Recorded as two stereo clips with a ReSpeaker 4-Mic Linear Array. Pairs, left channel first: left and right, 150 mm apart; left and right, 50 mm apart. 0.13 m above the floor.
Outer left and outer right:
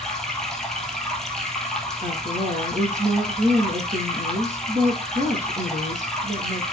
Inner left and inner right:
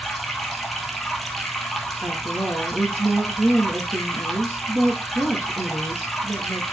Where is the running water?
5° left (ahead or behind), 1.4 m.